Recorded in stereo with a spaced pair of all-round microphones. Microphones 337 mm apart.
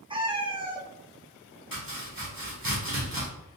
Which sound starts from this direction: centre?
A cat meowing, at 0.1 s.